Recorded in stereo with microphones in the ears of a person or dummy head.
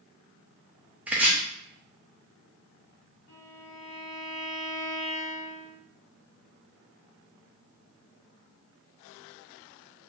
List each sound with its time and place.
1.1 s chopping: 5° right (ahead or behind), 0.6 m
3.3 s a violin: 45° left (ahead or behind), 1.7 m